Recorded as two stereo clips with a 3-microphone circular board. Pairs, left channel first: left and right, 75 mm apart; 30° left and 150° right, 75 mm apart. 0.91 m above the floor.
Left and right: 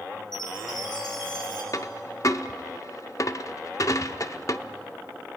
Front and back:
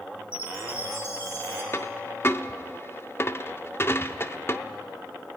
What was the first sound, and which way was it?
A chime, 85° left.